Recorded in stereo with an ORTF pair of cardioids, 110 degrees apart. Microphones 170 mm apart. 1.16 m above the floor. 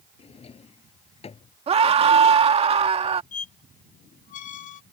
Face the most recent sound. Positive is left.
turn(degrees=50)